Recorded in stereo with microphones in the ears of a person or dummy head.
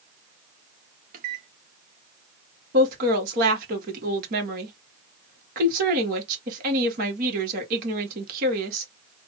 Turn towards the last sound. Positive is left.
turn(degrees=-45)  # may be behind; listen again after turning